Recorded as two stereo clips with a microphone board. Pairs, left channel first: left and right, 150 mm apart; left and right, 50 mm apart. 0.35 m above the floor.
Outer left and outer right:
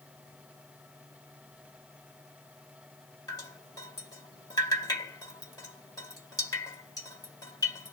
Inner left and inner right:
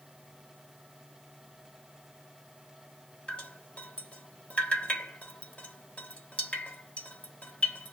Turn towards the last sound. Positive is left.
turn(degrees=25)  # may be behind; listen again after turning